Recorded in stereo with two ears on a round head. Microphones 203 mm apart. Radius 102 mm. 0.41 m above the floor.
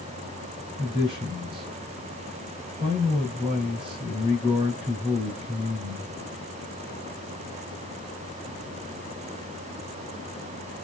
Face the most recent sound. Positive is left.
turn(degrees=-20)  # may be behind; listen again after turning